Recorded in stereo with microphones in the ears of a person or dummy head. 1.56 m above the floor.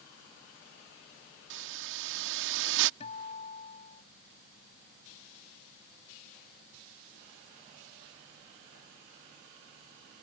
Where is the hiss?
70° right (ahead or behind).